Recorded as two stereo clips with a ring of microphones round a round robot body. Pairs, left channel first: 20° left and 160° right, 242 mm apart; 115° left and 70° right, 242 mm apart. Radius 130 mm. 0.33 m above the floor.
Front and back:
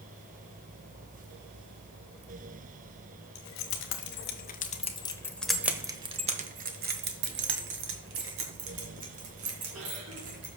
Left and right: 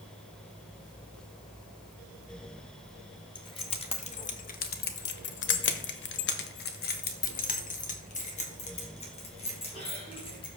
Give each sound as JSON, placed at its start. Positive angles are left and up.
{"t": 3.4, "sound": "keys jangling", "azimuth_deg": 45, "distance_m": 1.6}